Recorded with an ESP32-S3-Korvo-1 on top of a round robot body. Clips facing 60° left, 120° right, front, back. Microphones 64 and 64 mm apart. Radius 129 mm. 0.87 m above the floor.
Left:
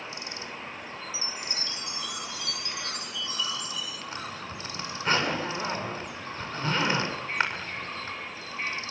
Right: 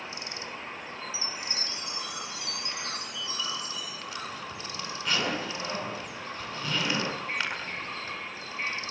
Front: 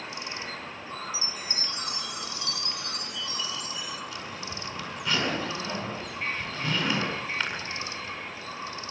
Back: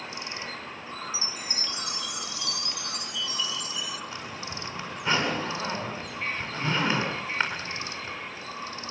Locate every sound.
1.1 s a chime: 55° right, 3 m
4.1 s a zipper: 120° left, 8 m